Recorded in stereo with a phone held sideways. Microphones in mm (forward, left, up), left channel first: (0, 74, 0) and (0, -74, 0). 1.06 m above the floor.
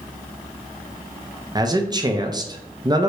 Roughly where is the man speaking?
Right.